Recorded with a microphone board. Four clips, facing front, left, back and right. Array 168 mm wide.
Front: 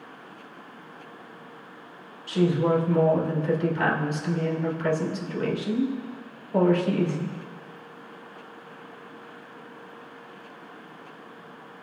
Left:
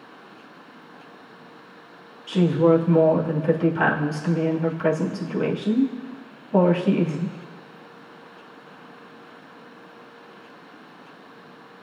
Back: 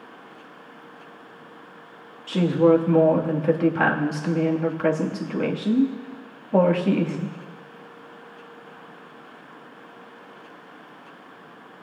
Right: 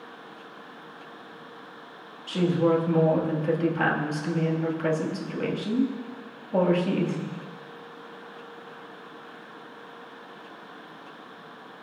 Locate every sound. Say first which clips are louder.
2.3 s a woman speaking: left 5 dB, back 5 dB; 175° left, 2.5 m